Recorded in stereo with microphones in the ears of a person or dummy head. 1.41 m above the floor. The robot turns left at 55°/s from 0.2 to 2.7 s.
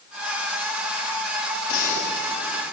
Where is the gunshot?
65° left, 4.5 m; by 2.7 s 5° left, 4.5 m.